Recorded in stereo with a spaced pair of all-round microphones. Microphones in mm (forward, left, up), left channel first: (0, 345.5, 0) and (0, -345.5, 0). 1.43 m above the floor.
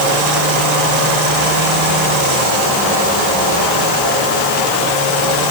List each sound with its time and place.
Only background noise.